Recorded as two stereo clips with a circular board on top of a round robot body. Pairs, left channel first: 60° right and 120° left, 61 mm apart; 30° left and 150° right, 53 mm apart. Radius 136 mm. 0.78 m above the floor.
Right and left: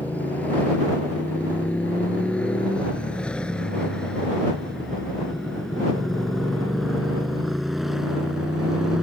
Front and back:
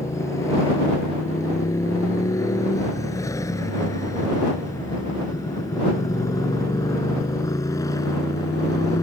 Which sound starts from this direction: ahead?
A motorcycle, at 0.0 s.